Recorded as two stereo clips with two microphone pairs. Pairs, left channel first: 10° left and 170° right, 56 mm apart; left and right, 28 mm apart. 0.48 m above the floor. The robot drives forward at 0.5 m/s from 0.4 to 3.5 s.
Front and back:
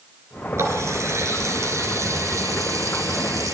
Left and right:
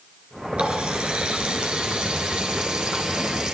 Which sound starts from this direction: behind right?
A running tap, at 0.6 s.